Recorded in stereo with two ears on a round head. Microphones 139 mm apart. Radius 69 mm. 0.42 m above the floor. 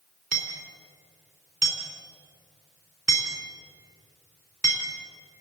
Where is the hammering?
55° right (ahead or behind), 3.5 m.